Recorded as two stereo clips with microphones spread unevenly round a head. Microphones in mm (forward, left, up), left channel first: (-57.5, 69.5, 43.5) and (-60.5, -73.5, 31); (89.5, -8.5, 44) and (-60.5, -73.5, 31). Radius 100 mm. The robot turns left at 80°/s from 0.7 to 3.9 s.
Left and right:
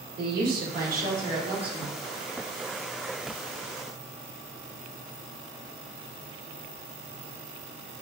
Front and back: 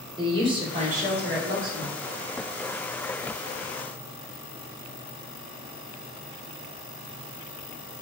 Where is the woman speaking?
95° right, 1.1 m; by 1.9 s 170° left, 1.1 m.